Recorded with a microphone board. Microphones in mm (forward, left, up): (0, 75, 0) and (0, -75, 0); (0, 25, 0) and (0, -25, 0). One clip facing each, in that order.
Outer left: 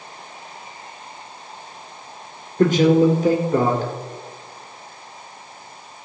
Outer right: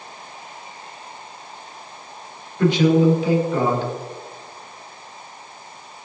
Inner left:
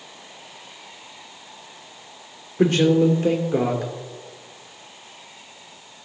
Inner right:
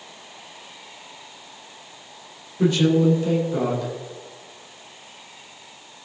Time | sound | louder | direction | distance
2.6 | a man speaking | outer left 1 dB, inner left 1 dB | 45° left (ahead or behind) | 3.5 m